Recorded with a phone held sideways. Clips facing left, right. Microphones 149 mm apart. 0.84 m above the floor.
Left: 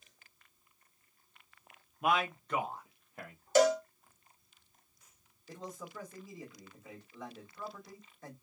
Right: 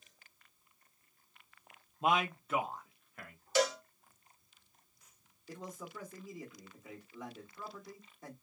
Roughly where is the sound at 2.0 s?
Right.